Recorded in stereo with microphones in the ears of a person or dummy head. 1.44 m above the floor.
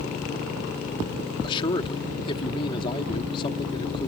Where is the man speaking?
35° left (ahead or behind).